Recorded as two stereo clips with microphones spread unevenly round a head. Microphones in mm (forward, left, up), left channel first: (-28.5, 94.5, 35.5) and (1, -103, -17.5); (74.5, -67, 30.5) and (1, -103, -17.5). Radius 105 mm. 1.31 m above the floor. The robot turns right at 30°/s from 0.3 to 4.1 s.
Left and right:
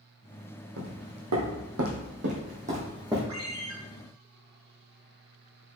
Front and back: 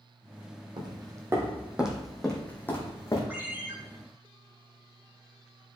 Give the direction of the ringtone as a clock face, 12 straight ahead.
2 o'clock.